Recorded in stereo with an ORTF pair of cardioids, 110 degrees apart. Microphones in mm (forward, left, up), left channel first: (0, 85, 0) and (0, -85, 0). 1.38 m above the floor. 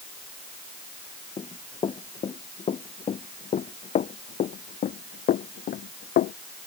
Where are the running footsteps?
30° left; by 6.3 s 75° left.